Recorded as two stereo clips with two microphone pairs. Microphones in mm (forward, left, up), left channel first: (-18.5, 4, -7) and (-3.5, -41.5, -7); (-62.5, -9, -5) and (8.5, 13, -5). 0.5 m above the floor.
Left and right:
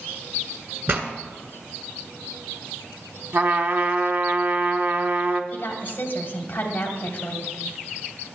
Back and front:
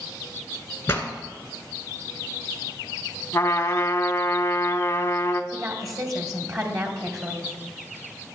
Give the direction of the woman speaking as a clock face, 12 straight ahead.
10 o'clock.